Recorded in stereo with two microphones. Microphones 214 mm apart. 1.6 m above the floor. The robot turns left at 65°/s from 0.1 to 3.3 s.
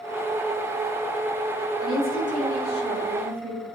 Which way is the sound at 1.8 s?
90° left.